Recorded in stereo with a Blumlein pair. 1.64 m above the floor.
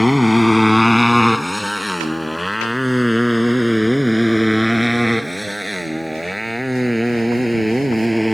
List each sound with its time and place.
0.0 s a motorcycle: 5° left; by 8.3 s 5° right